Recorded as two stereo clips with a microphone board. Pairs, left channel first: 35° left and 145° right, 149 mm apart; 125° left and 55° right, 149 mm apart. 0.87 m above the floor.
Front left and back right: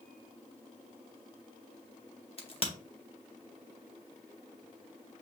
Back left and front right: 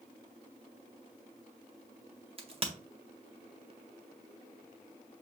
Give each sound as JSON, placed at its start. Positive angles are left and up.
{"t": 2.4, "sound": "a crack", "azimuth_deg": -10, "distance_m": 1.1}